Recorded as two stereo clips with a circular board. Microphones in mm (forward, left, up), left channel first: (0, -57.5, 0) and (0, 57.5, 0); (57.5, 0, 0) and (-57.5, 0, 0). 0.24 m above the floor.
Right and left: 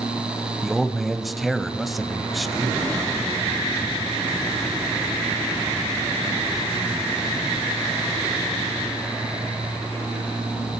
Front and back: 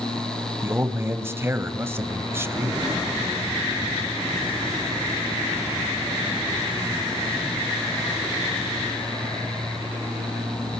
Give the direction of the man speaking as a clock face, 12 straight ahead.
6 o'clock.